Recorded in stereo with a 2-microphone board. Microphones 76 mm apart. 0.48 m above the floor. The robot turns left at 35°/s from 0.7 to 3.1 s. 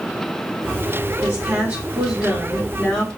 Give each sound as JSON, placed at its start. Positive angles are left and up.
{"t": 1.2, "sound": "a woman speaking", "azimuth_deg": -125, "distance_m": 1.6}